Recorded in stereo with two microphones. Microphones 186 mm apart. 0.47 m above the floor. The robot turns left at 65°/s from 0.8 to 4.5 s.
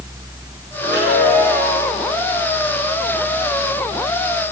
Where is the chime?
90° left, 9 m; by 1.9 s 15° left, 9 m.